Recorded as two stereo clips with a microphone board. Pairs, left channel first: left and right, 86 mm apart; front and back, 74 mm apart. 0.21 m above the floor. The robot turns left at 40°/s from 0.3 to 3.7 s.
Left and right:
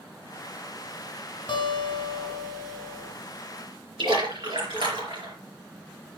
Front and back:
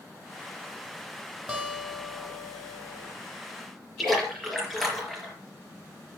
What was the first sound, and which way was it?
A guitar, 95° left.